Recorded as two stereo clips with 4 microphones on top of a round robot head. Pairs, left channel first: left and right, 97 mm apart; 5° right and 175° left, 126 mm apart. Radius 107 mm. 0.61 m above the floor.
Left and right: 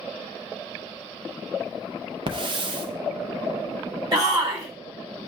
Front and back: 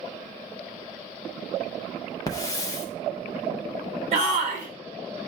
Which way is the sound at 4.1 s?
140° right.